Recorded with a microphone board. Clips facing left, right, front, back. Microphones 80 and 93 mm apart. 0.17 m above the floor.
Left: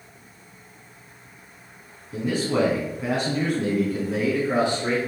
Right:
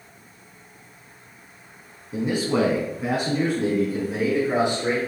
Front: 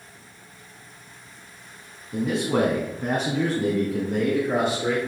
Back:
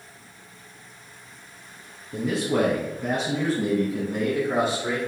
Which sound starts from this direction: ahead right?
A man speaking, at 2.1 s.